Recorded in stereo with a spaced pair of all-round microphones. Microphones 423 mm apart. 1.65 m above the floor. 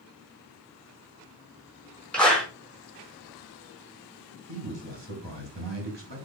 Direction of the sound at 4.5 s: 80° right.